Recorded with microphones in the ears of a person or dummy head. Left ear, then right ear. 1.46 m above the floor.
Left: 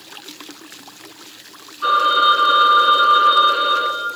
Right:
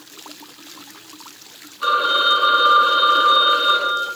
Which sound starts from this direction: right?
A phone ringing, at 1.8 s.